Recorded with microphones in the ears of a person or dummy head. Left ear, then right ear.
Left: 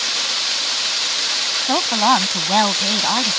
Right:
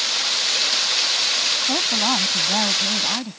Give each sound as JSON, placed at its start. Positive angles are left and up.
{"t": 1.7, "sound": "a woman speaking", "side_deg": 60}